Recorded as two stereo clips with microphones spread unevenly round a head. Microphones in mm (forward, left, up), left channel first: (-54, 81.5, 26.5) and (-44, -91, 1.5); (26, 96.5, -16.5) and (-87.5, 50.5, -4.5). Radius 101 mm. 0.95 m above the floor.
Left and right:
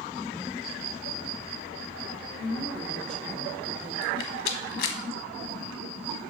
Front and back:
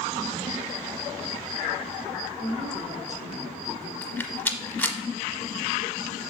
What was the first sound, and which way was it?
A woman speaking, 175° left.